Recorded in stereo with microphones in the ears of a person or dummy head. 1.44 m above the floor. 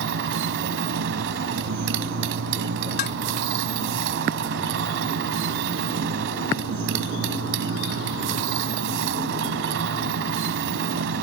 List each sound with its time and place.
0.0 s a motorcycle: 70° right (ahead or behind)
3.0 s dishes clattering: 60° left (ahead or behind)